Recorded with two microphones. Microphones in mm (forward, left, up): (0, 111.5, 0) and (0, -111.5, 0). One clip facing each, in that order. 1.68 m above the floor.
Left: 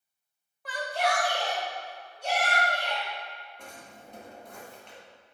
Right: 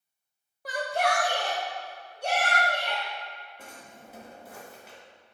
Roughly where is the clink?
No clink in this recording.